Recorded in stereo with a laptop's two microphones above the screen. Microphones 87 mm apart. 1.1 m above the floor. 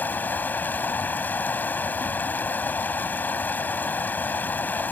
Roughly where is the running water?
Centre.